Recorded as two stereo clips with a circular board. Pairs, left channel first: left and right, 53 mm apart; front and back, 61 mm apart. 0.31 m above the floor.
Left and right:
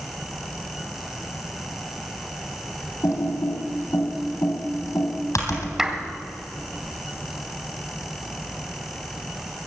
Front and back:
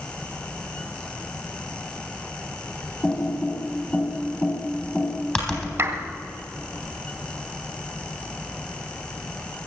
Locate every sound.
3.0 s typing on a keyboard: 75° left, 3.5 m
5.8 s a clap: 165° right, 1.5 m